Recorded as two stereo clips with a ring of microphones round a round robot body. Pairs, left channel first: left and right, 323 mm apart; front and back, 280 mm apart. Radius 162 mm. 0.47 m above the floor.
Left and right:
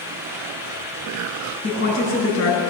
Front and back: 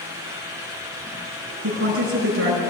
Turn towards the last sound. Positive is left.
turn(degrees=140)